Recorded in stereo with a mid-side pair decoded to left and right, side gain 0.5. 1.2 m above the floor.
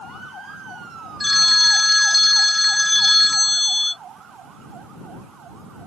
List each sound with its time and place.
1.2 s a phone ringing: 5° left